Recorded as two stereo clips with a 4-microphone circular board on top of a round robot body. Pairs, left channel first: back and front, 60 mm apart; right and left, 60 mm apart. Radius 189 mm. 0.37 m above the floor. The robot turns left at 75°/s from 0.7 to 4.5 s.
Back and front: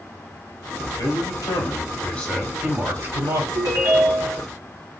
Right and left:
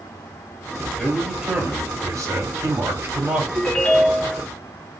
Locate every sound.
1.0 s a man speaking: 165° right, 2.5 m; by 3.4 s 10° left, 2.5 m
3.5 s a ringtone: straight ahead, 2.5 m; by 4.4 s 65° right, 2.5 m